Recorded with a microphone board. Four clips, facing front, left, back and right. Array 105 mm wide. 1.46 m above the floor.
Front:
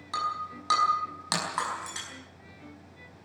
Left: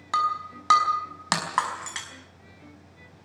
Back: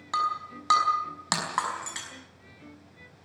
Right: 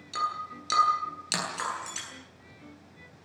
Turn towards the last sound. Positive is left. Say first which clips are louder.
# left 6 dB, back 3 dB
turn(degrees=105)